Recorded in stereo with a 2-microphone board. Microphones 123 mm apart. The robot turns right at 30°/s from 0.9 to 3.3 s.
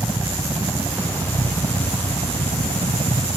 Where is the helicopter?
25° right (ahead or behind); by 3.4 s 60° right (ahead or behind).